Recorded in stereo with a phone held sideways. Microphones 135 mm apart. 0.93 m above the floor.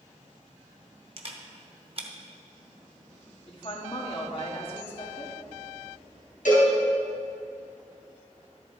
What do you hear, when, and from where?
1.2 s a camera shutter: 45° right (ahead or behind), 1.0 m
3.5 s a woman speaking: 45° left (ahead or behind), 1.6 m
6.5 s a cowbell: 75° left (ahead or behind), 3.5 m